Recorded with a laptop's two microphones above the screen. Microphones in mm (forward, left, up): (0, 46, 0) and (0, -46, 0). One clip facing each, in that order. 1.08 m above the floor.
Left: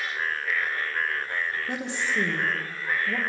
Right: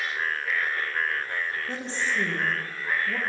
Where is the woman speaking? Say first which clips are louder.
Left 1 dB; 15° left (ahead or behind), 0.8 m.